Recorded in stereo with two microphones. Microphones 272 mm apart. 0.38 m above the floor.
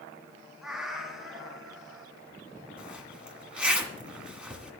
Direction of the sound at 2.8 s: 5° right (ahead or behind).